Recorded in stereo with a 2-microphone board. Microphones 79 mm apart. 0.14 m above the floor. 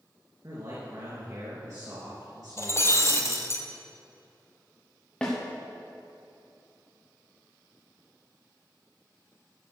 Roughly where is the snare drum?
Centre.